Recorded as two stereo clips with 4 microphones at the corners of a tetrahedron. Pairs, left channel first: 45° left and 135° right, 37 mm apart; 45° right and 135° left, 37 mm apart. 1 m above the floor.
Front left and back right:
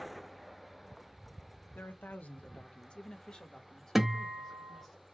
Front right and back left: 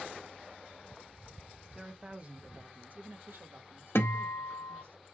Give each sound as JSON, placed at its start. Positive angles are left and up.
{"t": 1.8, "sound": "a man speaking", "azimuth_deg": 65, "distance_m": 0.9}
{"t": 4.0, "sound": "a guitar", "azimuth_deg": -50, "distance_m": 0.6}